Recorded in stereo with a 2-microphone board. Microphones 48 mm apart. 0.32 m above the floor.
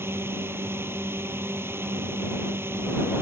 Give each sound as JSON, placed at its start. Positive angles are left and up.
{"t": 0.0, "sound": "a drone", "side_deg": -55}